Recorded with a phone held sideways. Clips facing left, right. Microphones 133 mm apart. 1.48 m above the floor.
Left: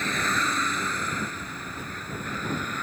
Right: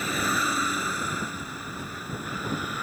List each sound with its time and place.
0.0 s a vehicle: 10° right (ahead or behind); by 2.8 s 5° right (ahead or behind)